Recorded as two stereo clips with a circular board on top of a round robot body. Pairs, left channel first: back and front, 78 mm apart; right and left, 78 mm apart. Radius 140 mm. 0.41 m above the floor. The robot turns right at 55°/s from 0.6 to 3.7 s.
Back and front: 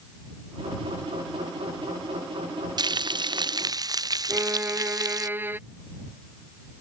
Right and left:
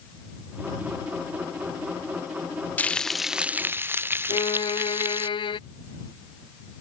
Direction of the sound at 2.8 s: 20° right.